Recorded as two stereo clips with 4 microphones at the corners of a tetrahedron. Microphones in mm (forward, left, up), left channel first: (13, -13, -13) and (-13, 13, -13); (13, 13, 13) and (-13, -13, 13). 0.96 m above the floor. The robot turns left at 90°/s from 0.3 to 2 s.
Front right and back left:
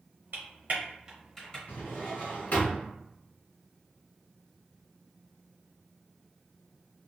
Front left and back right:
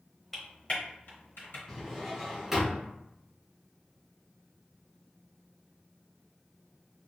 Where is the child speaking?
I don't hear a child speaking.